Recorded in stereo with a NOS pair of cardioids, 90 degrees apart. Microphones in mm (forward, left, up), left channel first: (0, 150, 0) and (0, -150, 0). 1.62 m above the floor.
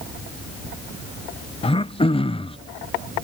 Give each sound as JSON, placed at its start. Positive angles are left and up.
{"t": 1.6, "sound": "throat clearing", "azimuth_deg": 20}